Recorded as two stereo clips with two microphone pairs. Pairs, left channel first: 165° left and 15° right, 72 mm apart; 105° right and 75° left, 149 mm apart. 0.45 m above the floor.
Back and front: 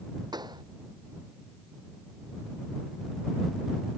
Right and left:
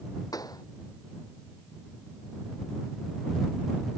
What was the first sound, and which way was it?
A pop, 35° right.